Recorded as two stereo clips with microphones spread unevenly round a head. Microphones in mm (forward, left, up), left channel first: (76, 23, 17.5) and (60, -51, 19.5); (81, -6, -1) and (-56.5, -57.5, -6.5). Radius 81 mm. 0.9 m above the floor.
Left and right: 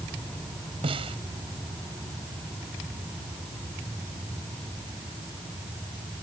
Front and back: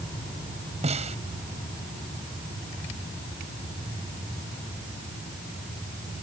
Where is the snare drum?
110° right.